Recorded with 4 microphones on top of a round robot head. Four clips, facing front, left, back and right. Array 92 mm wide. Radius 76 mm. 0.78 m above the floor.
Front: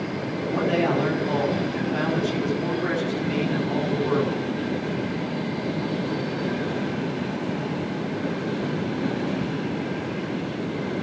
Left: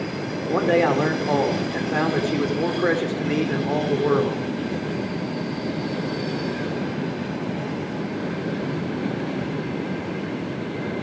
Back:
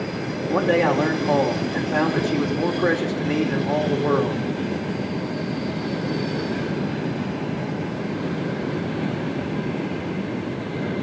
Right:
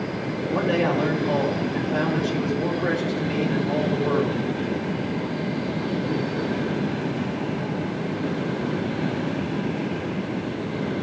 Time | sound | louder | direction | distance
0.5 | a man speaking | left 4 dB, back 4 dB | 130° left | 3.5 m